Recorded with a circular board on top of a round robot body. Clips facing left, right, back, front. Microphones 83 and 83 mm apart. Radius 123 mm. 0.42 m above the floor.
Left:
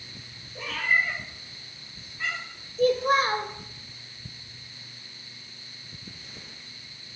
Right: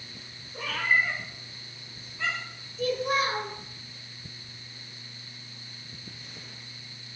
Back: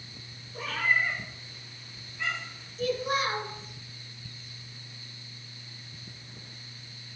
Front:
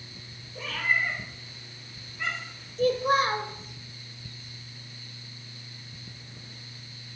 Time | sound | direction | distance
0.5 | a cat meowing | 135° right | 1.2 m
2.8 | a child speaking | 50° left | 1.0 m